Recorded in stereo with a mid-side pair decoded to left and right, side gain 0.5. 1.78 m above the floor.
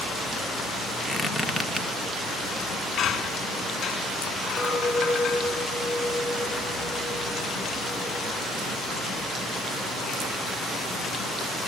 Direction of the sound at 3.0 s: 50° left.